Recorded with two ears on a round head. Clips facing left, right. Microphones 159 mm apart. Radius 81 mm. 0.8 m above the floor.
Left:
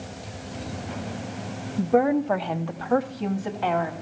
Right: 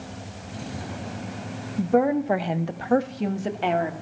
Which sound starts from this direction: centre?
A woman speaking, at 1.8 s.